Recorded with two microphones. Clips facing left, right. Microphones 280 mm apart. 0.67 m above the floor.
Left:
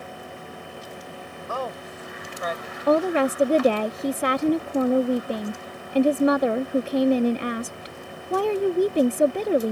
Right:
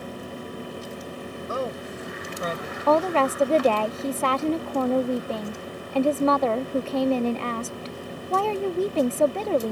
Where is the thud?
I don't hear a thud.